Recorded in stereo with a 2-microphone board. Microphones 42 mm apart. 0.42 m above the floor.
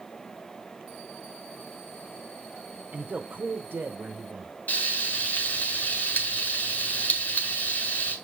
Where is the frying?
40° left (ahead or behind), 1.6 m.